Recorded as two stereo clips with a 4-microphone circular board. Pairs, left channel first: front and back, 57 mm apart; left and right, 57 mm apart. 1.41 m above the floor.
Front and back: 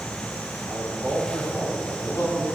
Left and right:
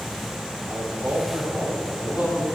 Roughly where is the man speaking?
Ahead right.